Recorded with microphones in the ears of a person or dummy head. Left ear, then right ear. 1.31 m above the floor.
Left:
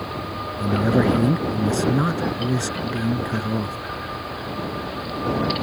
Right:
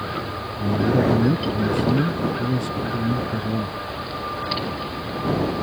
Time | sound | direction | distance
0.6 | a man speaking | 40° left (ahead or behind) | ?